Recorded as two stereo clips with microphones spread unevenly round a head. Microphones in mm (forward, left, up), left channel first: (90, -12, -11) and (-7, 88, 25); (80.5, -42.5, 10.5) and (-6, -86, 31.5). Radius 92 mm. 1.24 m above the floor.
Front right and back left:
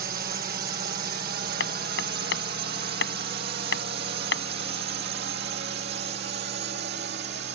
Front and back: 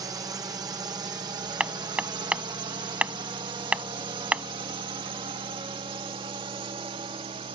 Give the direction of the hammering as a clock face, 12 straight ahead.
3 o'clock.